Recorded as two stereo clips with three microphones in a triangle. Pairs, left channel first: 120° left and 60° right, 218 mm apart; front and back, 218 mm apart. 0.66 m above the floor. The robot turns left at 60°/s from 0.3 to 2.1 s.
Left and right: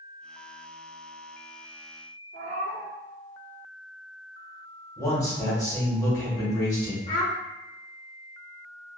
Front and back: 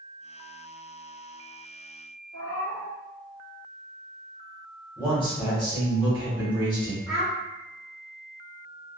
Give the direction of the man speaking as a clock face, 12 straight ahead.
10 o'clock.